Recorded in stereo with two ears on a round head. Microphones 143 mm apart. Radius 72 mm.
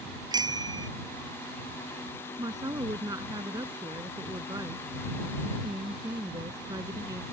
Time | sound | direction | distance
0.3 | a bicycle bell | 25° right (ahead or behind) | ?
2.4 | a woman speaking | 25° right (ahead or behind) | ?